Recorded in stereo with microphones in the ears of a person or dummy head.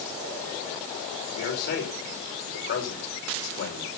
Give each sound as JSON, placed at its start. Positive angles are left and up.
{"t": 1.4, "sound": "a man speaking", "side_deg": 70, "distance_m": 4.5}